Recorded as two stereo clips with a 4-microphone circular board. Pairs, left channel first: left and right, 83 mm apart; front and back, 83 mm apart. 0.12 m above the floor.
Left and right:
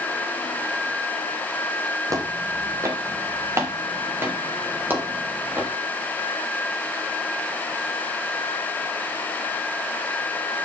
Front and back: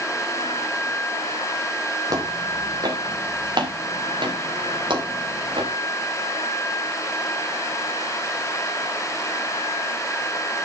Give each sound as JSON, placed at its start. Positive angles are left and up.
{"t": 2.1, "sound": "footsteps", "azimuth_deg": -135, "distance_m": 4.0}